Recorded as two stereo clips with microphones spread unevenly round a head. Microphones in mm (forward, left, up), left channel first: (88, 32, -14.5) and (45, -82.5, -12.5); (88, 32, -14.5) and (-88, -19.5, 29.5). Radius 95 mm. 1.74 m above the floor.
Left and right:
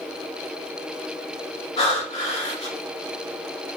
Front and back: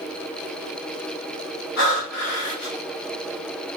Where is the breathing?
45° left, 2 m.